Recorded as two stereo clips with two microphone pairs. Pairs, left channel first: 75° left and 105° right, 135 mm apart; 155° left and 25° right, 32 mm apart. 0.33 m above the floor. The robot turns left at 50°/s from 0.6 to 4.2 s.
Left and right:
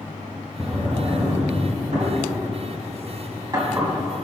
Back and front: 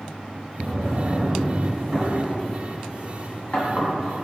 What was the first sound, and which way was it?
A drawer, 20° right.